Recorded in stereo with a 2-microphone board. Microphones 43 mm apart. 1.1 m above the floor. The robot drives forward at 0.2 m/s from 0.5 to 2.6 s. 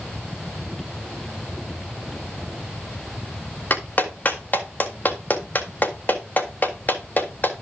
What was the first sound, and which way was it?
A clap, 40° left (ahead or behind).